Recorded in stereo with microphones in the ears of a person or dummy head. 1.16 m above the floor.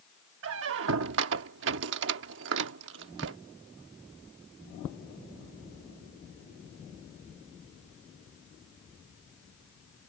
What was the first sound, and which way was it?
A squeak, 65° right (ahead or behind).